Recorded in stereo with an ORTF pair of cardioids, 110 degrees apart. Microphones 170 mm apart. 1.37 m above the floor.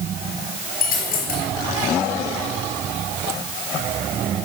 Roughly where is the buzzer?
I don't hear a buzzer.